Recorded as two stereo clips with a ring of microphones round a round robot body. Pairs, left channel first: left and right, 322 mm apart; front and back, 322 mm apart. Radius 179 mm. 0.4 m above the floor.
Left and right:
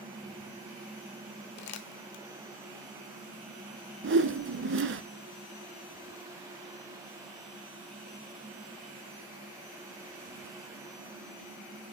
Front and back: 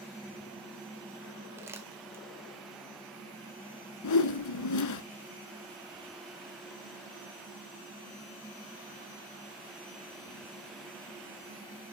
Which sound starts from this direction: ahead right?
A whoosh, at 4.0 s.